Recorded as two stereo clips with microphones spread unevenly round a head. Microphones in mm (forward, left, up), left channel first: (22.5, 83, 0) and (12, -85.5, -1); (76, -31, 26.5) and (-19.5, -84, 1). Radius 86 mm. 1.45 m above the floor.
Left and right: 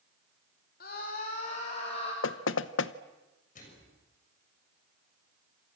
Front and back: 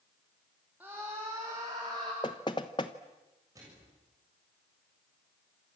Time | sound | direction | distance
0.8 | a scream | 130° left | 3.5 m
2.2 | knocking | 90° left | 0.9 m
3.5 | a microwave | 135° left | 7 m